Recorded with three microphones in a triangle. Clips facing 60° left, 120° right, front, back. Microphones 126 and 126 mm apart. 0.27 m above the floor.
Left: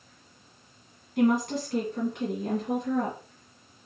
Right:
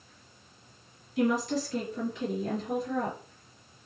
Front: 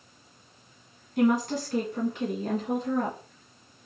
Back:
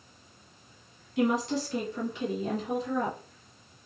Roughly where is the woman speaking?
Ahead left.